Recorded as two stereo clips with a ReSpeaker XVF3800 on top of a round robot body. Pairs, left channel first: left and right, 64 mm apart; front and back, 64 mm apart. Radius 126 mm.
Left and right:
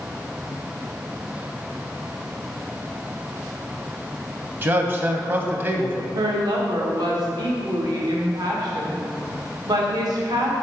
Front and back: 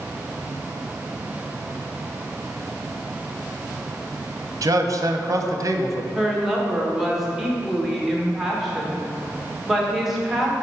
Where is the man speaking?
145° right, 0.8 m.